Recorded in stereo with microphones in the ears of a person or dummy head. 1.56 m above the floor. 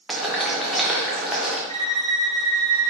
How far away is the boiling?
About 0.9 m.